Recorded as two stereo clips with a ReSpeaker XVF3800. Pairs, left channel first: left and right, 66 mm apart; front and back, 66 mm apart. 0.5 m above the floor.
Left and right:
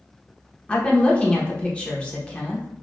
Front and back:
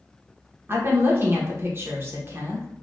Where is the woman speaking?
155° left, 1.0 m.